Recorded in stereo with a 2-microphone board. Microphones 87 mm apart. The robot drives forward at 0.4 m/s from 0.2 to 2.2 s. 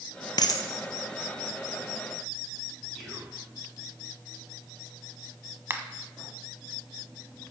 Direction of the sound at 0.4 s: 55° left (ahead or behind).